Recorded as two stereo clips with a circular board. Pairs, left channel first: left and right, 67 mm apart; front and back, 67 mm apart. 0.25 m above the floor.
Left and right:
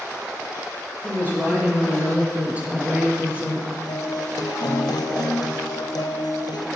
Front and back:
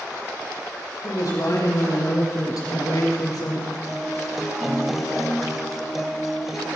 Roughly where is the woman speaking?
Ahead right.